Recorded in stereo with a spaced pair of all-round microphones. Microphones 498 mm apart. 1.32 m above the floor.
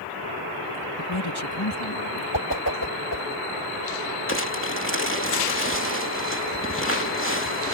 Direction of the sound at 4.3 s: 25° left (ahead or behind).